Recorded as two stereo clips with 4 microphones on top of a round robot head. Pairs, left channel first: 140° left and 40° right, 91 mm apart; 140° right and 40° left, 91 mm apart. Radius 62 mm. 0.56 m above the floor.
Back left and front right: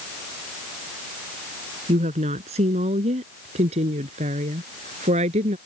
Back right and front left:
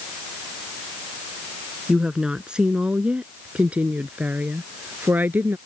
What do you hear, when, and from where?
1.9 s a woman speaking: 40° right; by 5.6 s 30° right